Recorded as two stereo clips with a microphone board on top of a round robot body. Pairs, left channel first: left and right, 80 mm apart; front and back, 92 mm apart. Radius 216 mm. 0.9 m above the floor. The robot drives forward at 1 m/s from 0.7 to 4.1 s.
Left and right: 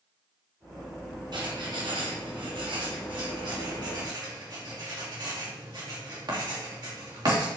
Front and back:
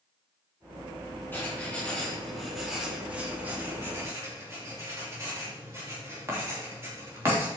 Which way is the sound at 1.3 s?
70° right.